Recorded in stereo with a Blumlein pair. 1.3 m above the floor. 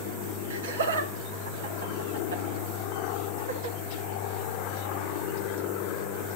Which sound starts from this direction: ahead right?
Laughter, at 0.5 s.